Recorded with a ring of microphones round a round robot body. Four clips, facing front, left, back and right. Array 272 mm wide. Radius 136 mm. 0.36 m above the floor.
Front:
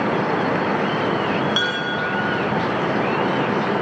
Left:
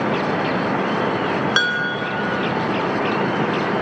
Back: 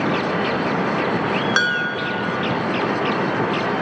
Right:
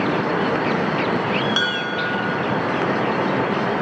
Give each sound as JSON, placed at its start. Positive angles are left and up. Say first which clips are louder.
{"t": 1.6, "sound": "dishes clattering", "louder": "left 2 dB, back 2 dB", "azimuth_deg": 140, "distance_m": 2.5}